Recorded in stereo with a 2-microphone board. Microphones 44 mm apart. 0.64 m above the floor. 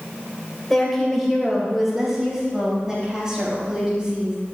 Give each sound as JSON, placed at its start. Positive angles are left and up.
{"t": 0.7, "sound": "a woman speaking", "side_deg": 5, "distance_m": 2.5}